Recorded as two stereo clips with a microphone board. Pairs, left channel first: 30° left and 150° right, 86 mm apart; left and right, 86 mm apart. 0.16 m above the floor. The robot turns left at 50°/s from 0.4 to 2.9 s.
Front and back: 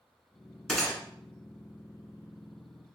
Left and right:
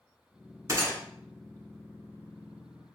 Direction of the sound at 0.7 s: 55° right.